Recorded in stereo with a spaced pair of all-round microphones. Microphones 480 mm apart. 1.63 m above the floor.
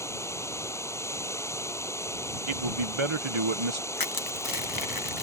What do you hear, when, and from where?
0.0 s running water: 5° left (ahead or behind)
2.5 s a man speaking: 75° right (ahead or behind)
4.0 s crushing: 45° left (ahead or behind)